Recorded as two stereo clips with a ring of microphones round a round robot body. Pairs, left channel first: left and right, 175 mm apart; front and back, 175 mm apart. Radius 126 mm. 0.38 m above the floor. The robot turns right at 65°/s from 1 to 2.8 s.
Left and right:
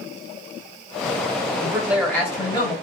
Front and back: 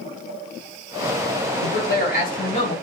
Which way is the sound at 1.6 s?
25° right.